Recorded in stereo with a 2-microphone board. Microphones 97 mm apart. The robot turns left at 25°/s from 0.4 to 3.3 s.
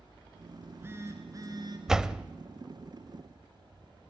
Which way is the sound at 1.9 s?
5° right (ahead or behind).